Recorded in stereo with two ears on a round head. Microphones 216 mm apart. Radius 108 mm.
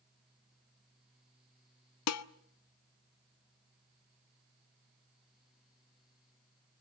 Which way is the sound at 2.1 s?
75° left (ahead or behind).